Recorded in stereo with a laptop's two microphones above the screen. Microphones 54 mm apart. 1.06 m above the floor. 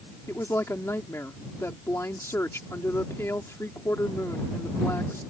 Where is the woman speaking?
65° left (ahead or behind).